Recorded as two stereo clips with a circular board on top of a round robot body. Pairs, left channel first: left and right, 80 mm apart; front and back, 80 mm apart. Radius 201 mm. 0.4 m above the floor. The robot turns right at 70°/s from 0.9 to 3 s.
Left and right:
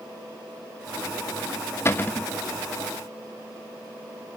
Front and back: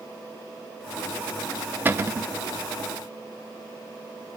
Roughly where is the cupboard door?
Behind left.